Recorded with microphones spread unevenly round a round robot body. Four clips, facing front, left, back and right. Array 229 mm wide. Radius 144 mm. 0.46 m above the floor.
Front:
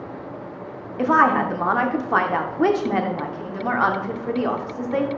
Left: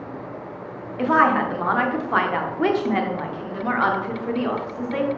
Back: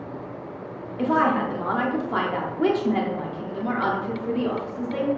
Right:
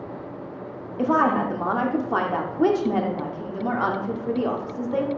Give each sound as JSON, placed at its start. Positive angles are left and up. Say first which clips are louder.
{"t": 1.0, "sound": "a woman speaking", "louder": "left 2 dB, front 4 dB", "azimuth_deg": -20, "distance_m": 0.7}